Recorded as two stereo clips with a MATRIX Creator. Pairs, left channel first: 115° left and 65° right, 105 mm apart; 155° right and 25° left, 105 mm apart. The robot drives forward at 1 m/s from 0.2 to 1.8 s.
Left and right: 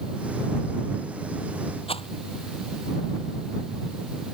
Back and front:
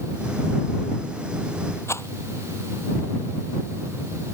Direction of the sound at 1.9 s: 140° left.